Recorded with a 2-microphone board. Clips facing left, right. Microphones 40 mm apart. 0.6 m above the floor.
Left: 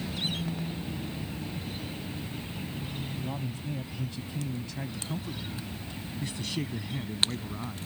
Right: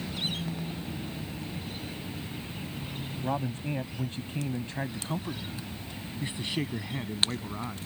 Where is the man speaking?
55° right (ahead or behind); by 7.9 s 20° right (ahead or behind).